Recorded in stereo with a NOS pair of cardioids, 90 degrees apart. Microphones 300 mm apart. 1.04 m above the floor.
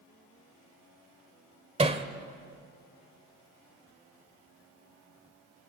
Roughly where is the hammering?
Ahead.